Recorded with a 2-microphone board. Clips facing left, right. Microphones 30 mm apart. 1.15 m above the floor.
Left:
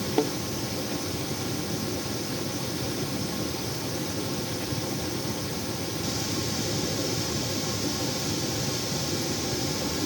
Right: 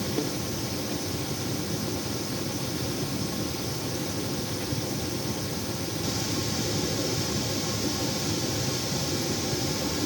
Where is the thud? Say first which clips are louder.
Left 6 dB; 65° left (ahead or behind).